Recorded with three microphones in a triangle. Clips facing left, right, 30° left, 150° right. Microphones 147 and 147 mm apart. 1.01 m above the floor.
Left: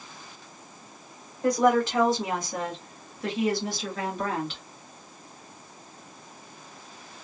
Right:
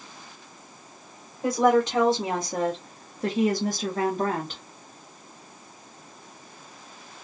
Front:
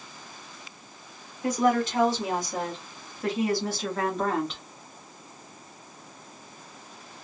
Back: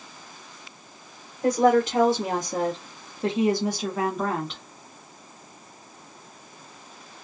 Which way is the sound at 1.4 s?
165° right.